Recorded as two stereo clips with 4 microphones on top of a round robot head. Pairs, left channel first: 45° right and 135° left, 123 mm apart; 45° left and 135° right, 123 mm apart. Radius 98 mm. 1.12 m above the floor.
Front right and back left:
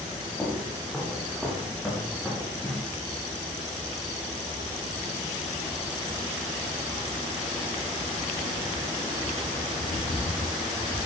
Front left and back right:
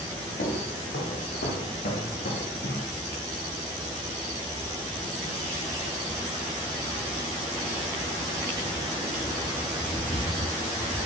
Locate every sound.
0.4 s footsteps: 40° left, 5.5 m; by 2.9 s 35° left, 3.5 m